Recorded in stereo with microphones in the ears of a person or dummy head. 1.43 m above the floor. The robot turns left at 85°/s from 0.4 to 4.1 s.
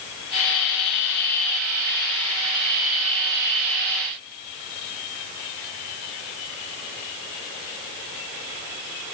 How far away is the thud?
No thud in this recording.